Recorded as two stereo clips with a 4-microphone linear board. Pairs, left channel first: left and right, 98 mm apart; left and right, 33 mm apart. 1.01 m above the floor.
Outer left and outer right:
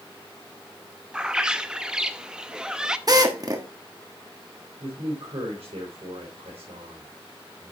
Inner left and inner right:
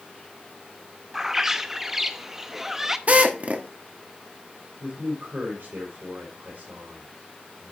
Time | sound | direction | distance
1.1 | a bird | 10° right (ahead or behind) | 0.6 m
3.1 | a drill | 40° right (ahead or behind) | 1.2 m
4.8 | a man speaking | 85° right | 3 m